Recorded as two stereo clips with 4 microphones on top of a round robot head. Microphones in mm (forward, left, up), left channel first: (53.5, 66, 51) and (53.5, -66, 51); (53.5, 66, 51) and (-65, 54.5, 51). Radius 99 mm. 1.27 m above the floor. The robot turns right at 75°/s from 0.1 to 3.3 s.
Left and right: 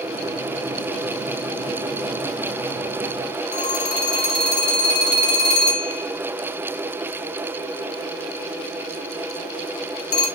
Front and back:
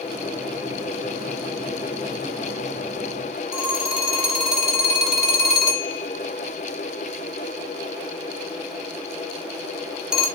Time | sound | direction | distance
3.5 | a phone ringing | 100° left | 1.6 m